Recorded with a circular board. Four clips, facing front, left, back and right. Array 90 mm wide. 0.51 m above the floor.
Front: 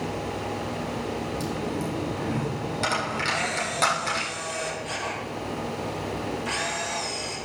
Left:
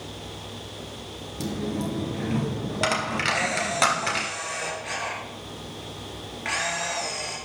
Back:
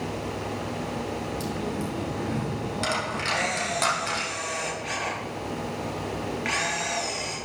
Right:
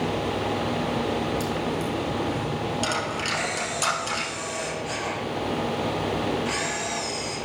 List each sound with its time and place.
1.4 s a dropped coin: 85° left, 2.5 m
3.3 s a camera shutter: 150° left, 4 m